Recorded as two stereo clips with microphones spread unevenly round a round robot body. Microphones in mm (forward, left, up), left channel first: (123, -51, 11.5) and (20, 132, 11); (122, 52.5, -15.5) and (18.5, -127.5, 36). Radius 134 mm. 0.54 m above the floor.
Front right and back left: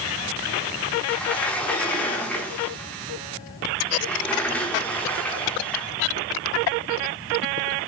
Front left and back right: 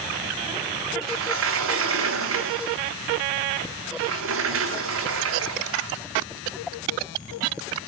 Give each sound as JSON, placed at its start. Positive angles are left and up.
{"t": 1.1, "sound": "a sliding door", "azimuth_deg": -145, "distance_m": 0.9}